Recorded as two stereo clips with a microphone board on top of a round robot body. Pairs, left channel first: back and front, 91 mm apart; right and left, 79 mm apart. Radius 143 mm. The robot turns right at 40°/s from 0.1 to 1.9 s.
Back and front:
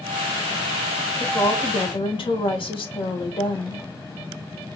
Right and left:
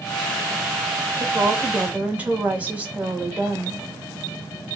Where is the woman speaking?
135° left, 1.7 m; by 3.8 s 160° left, 1.7 m.